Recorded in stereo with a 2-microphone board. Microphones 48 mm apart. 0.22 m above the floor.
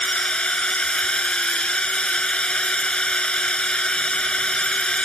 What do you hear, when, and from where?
0.0 s a drone: 20° left (ahead or behind)